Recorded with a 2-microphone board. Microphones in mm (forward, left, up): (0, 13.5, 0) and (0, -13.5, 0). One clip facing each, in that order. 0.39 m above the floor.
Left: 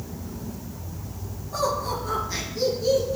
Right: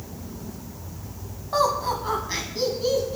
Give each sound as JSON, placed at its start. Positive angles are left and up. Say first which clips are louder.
{"t": 1.5, "sound": "laughter", "louder": "right 4 dB", "side_deg": -45, "distance_m": 2.5}